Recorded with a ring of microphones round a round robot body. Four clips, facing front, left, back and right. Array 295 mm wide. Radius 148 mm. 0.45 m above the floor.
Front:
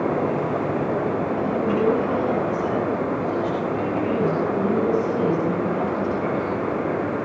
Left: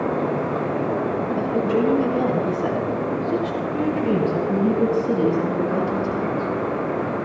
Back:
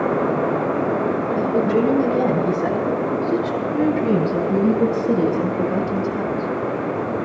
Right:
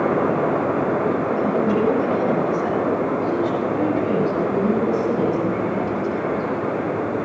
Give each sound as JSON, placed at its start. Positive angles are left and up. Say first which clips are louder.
{"t": 1.4, "sound": "a woman speaking", "louder": "left 1 dB, back 5 dB", "azimuth_deg": -175, "distance_m": 8.5}